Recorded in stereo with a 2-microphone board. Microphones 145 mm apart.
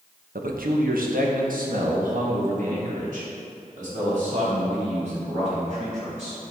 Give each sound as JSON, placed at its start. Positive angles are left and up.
{"t": 0.3, "sound": "a man speaking", "side_deg": -80, "distance_m": 1.0}